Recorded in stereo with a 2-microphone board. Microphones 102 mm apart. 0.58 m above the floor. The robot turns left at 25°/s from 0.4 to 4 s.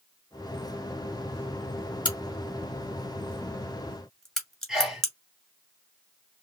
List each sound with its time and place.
2.0 s a crack: 55° left (ahead or behind), 1.8 m; by 5.1 s 5° left (ahead or behind), 1.8 m
4.7 s a sneeze: 5° right (ahead or behind), 2.5 m